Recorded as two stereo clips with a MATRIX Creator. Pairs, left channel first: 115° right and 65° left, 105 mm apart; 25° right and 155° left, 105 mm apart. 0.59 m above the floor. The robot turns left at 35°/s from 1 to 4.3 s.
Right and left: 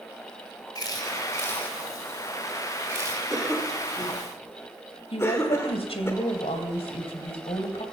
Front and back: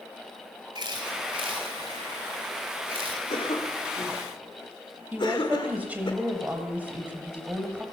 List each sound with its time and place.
0.8 s a camera shutter: 160° right, 2.5 m; by 3.2 s 120° left, 2.5 m
3.3 s a cough: 15° right, 2.5 m; by 6.1 s 50° right, 2.5 m
5.1 s a woman speaking: 130° right, 2.5 m